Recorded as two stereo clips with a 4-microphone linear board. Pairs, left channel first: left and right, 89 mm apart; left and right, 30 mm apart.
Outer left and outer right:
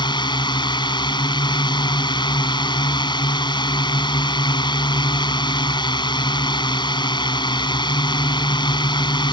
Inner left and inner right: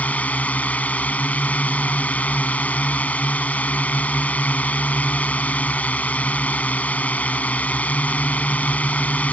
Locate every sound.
0.0 s a drone: 60° left (ahead or behind)